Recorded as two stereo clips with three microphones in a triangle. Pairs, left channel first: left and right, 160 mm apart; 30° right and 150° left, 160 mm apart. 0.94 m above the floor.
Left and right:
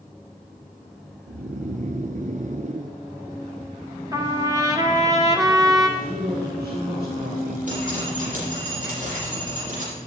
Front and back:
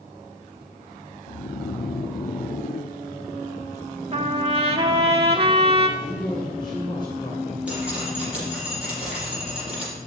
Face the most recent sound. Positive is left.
turn(degrees=-125)